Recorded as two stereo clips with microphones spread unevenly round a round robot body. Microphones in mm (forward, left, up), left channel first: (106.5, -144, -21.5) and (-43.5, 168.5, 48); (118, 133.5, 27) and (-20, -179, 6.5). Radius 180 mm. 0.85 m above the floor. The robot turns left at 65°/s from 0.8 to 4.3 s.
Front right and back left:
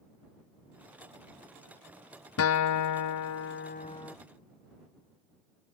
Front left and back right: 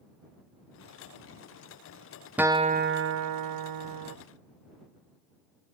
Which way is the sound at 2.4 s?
30° right.